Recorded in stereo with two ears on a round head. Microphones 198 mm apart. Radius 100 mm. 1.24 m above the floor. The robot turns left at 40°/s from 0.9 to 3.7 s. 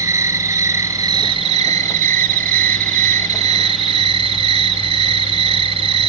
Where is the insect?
20° right, 1.3 m; by 6.1 s 135° right, 1.3 m.